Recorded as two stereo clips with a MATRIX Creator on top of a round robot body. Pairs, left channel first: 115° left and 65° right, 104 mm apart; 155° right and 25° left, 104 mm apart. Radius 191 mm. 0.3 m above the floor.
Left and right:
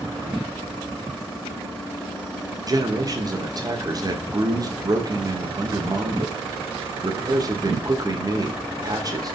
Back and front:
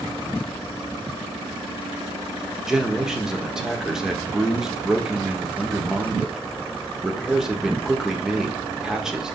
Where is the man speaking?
60° right, 1.6 m.